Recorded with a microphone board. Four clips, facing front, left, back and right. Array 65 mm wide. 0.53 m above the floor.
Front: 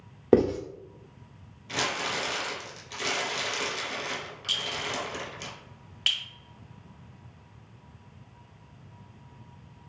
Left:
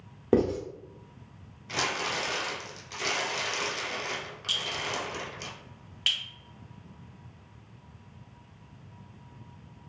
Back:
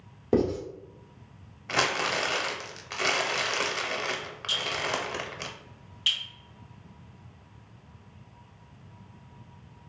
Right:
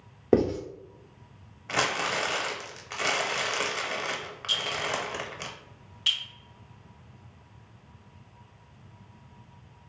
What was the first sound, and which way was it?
Writing, 15° right.